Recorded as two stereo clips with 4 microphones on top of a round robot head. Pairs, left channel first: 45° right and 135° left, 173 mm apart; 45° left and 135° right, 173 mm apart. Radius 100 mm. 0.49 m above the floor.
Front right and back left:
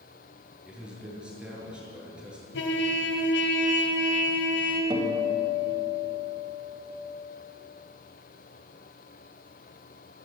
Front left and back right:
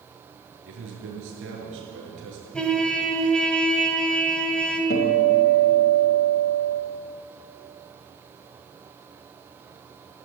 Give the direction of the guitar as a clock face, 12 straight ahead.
10 o'clock.